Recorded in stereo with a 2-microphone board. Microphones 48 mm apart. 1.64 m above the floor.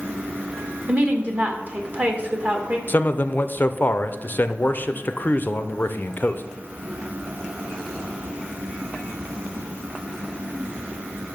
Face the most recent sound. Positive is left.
turn(degrees=40)  # may be behind; listen again after turning